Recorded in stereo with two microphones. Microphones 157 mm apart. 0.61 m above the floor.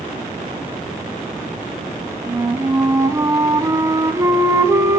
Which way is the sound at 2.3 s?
20° right (ahead or behind).